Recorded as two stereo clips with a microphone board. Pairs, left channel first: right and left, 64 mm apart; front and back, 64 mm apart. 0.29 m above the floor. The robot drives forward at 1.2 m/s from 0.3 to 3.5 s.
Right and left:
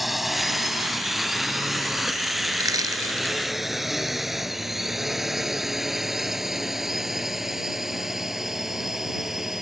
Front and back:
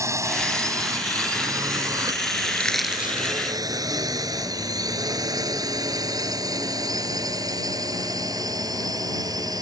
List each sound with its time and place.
0.0 s a drone: 175° left
2.5 s crushing: 65° left; by 3.4 s 130° left